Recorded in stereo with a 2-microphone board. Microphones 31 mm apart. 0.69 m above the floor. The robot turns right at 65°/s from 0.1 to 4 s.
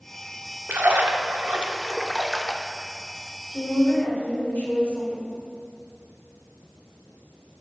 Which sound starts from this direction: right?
A splash, at 0.7 s.